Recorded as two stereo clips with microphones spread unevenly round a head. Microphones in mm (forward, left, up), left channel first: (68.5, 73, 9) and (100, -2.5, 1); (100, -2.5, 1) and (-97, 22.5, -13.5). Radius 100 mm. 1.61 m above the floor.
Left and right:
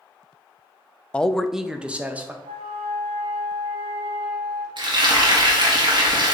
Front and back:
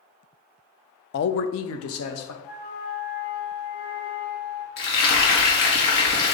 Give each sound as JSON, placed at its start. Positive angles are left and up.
{"t": 1.1, "sound": "a man speaking", "azimuth_deg": 35, "distance_m": 0.5}
{"t": 2.4, "sound": "a flute", "azimuth_deg": -65, "distance_m": 1.4}
{"t": 4.8, "sound": "frying", "azimuth_deg": -45, "distance_m": 1.7}